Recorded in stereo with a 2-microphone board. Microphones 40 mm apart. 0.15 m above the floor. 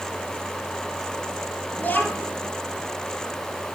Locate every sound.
1.8 s a child speaking: 55° left (ahead or behind), 3 m